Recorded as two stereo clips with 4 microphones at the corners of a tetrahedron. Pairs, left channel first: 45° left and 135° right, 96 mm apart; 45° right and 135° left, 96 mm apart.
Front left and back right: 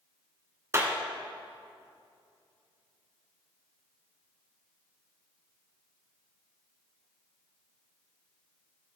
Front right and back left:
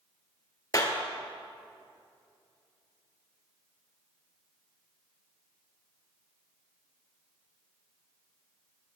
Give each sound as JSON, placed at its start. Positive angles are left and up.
{"t": 0.7, "sound": "a clap", "azimuth_deg": -85, "distance_m": 2.0}